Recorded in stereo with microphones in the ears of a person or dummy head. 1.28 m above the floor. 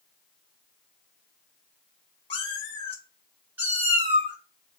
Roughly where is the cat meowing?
Left.